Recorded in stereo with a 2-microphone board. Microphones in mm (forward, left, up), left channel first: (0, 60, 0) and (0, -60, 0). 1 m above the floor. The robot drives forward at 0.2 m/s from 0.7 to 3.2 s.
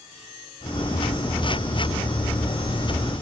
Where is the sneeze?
I don't hear a sneeze.